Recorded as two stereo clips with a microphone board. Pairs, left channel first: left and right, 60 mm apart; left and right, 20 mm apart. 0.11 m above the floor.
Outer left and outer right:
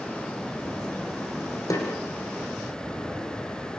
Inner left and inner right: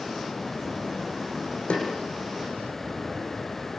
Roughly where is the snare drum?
Left.